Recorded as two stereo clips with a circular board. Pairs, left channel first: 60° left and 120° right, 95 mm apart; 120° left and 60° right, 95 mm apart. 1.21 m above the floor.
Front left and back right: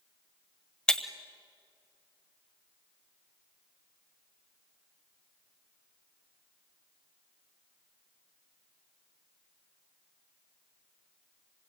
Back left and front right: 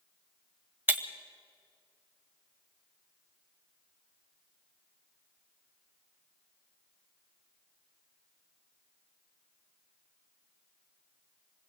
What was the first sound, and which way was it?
Breaking glass, 10° right.